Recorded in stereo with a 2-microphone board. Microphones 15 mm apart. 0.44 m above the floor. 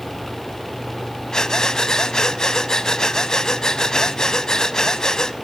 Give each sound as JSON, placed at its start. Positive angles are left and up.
{"t": 1.3, "sound": "breathing", "side_deg": 45, "distance_m": 0.8}